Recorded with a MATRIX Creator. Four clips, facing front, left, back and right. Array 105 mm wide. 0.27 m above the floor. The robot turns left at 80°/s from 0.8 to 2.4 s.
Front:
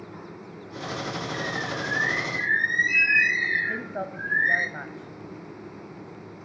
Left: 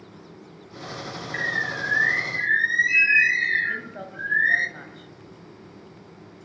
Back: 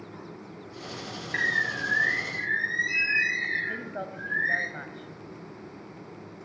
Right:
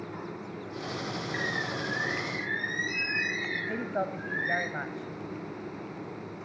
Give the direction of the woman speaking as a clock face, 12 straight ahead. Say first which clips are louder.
Right 3 dB, front 3 dB; 2 o'clock.